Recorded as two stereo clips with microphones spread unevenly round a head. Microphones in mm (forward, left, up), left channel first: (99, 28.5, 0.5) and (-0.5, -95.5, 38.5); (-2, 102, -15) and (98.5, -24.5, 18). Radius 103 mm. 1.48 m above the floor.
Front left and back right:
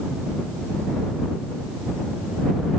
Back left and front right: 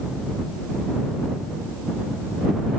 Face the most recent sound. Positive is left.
No sound to turn to.